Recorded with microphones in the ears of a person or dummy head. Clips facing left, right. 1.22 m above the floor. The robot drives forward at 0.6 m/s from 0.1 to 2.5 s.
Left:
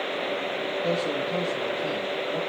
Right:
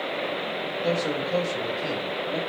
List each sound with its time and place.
0.8 s a man speaking: 25° right (ahead or behind), 3 m; by 2.4 s 40° right (ahead or behind), 2 m